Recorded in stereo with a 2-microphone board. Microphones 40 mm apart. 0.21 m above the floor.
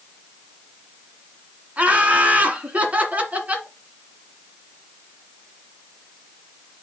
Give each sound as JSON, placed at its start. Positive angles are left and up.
{"t": 1.8, "sound": "laughter", "side_deg": -40, "distance_m": 1.7}